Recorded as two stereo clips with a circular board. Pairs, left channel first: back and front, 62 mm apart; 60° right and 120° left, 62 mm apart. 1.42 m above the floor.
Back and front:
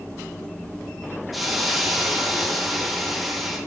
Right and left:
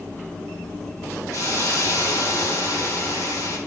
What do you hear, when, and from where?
1.3 s a hiss: 90° right, 3 m